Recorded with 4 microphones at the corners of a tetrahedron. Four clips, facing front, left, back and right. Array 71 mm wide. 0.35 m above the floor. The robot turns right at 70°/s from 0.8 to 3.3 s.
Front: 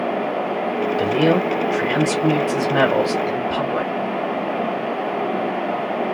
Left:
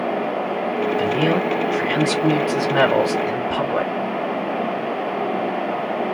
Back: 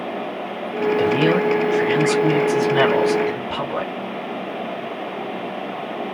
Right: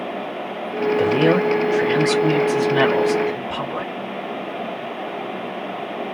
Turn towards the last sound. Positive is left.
turn(degrees=70)